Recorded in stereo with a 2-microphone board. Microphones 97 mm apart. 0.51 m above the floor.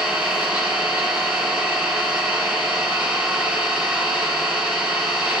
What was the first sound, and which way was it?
An engine running, 20° right (ahead or behind).